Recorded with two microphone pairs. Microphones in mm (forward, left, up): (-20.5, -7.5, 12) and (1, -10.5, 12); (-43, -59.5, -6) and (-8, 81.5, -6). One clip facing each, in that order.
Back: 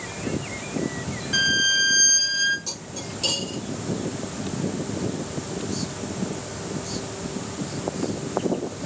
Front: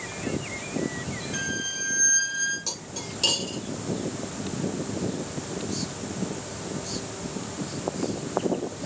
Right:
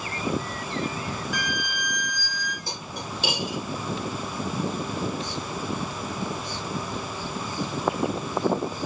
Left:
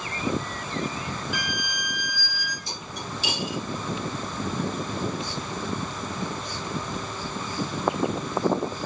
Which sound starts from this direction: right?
Cutlery clinking, at 2.7 s.